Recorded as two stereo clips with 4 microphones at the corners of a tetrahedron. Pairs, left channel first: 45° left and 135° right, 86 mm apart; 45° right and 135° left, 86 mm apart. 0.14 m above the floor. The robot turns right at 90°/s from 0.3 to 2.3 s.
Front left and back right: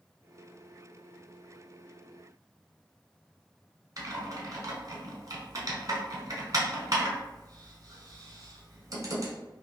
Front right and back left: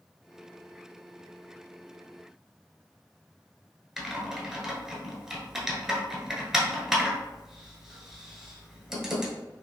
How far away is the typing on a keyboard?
About 0.9 m.